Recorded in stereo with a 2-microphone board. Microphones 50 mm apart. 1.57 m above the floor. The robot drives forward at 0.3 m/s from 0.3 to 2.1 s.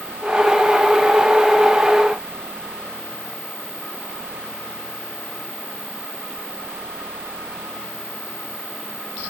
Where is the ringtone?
I don't hear a ringtone.